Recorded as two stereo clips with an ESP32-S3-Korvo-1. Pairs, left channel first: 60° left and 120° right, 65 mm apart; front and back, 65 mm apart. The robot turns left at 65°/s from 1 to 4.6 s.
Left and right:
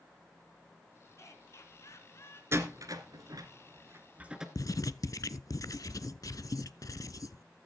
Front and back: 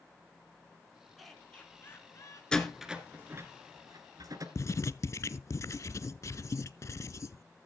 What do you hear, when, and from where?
1.2 s laughter: 90° left, 3 m; by 2.4 s 10° left, 3 m
2.5 s a door slam: 75° right, 1.7 m; by 4.5 s 160° left, 1.7 m
4.5 s writing: 40° left, 0.5 m; by 7.4 s 35° left, 0.5 m